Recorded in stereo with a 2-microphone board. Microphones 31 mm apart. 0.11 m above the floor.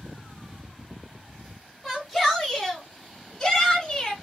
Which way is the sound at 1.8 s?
Centre (ahead or behind).